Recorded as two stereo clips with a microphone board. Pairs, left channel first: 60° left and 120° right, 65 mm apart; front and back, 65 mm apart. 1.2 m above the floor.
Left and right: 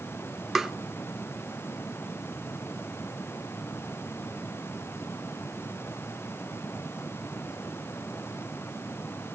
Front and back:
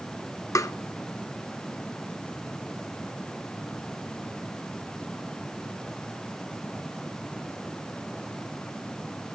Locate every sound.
0.6 s tapping: 35° right, 0.5 m